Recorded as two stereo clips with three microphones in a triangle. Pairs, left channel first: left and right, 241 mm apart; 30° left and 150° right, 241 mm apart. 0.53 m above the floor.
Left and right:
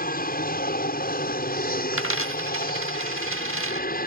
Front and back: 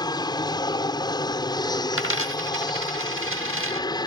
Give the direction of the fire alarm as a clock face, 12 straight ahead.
No fire alarm in this recording.